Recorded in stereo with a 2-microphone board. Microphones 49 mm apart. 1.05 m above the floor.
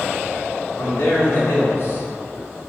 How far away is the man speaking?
About 2.5 m.